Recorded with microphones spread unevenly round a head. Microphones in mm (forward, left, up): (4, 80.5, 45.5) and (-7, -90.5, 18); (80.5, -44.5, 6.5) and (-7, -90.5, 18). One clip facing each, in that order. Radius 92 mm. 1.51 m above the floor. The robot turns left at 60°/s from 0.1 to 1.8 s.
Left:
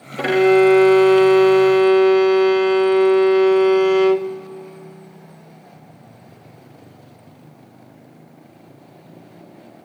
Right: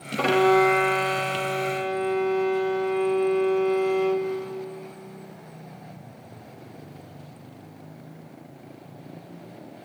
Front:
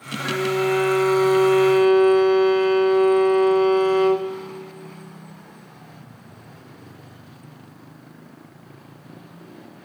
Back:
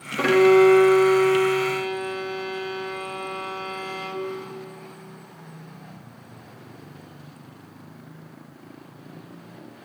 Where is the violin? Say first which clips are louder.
Left 6 dB, back 8 dB; 170° left, 0.6 m; by 4.3 s 75° left, 0.6 m.